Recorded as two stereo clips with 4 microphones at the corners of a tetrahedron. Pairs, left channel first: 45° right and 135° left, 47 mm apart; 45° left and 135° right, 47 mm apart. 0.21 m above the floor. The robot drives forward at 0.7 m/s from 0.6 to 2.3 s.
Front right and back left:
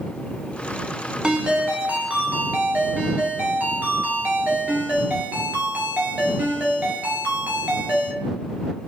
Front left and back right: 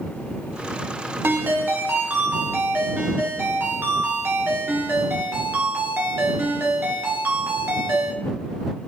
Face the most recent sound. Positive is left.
turn(degrees=-170)